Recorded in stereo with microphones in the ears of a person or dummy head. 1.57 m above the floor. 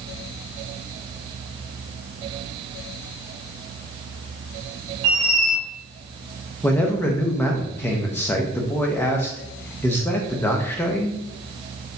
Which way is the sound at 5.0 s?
35° right (ahead or behind).